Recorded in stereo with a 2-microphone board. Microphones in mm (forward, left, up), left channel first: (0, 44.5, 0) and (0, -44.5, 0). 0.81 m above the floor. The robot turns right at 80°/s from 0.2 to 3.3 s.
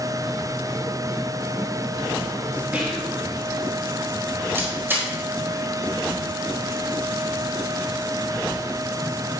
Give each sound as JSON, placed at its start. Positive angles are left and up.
{"t": 2.7, "sound": "whispering", "azimuth_deg": -155, "distance_m": 1.5}
{"t": 4.5, "sound": "a camera shutter", "side_deg": -25, "distance_m": 3.5}